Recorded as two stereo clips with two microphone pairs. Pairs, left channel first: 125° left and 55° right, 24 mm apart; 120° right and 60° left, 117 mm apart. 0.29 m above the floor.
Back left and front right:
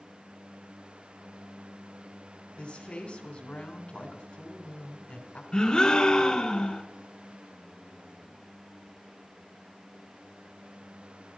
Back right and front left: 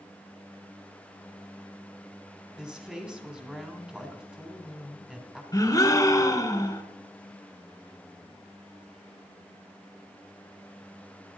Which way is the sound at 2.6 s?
140° left.